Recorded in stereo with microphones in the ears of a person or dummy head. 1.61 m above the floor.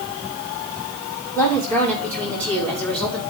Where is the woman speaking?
15° left (ahead or behind), 6.5 m; by 3.2 s 5° left (ahead or behind), 5.5 m.